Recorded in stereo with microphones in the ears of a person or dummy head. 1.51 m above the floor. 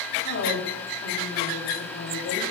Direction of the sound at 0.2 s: 60° left (ahead or behind).